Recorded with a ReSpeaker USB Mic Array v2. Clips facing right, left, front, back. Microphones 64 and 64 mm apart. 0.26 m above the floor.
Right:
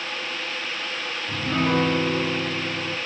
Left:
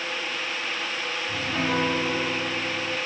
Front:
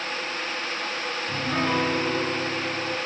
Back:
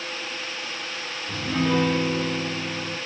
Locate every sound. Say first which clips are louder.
1.3 s a piano: right 5 dB, back 2 dB; 55° right, 1.2 m